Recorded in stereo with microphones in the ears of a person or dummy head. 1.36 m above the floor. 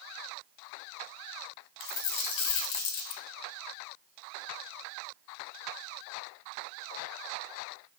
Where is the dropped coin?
50° left (ahead or behind), 1.0 m.